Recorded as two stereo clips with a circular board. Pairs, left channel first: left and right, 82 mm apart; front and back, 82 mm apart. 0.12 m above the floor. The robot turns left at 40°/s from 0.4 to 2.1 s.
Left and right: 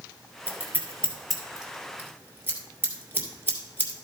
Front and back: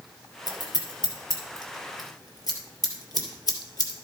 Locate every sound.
0.5 s scissors: 35° left, 3 m; by 4.0 s 30° right, 3 m